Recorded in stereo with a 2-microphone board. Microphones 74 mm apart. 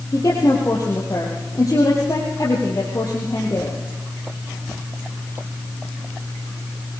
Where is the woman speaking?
50° left (ahead or behind), 4 m.